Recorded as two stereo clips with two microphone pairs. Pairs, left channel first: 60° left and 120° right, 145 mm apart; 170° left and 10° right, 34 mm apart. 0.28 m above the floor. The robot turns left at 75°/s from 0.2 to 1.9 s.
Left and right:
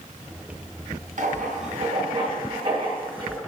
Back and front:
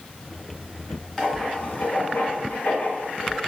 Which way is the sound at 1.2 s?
110° right.